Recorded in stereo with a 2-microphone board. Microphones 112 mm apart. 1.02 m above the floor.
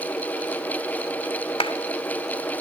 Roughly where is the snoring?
I don't hear snoring.